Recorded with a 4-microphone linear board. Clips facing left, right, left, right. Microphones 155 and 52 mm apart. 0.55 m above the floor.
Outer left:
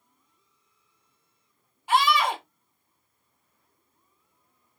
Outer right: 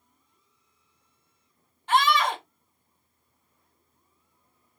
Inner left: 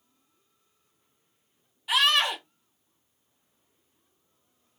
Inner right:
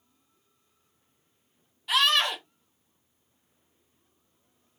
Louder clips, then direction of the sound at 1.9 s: Even, inner left 1 dB; 10° left (ahead or behind).